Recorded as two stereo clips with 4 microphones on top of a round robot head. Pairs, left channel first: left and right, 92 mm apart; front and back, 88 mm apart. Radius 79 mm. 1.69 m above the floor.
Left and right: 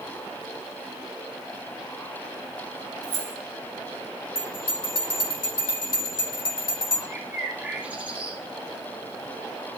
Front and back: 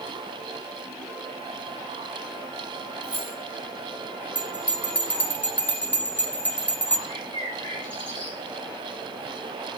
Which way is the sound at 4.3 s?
65° left.